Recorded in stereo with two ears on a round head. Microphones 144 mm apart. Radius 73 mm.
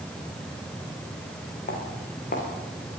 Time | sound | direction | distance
1.7 | footsteps | 60° left (ahead or behind) | 8 m